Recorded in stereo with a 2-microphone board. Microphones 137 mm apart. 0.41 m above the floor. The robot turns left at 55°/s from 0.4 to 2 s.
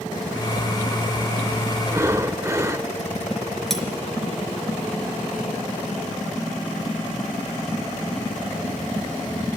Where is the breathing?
25° right (ahead or behind), 0.8 m; by 2.9 s 20° right (ahead or behind), 0.8 m.